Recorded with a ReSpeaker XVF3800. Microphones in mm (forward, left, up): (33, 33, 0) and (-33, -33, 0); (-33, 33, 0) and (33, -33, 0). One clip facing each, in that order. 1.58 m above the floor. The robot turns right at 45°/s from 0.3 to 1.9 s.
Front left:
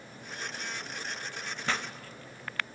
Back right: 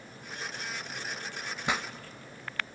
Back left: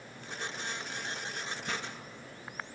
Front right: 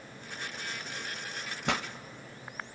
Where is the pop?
60° right, 0.5 m; by 1.9 s 50° right, 0.5 m.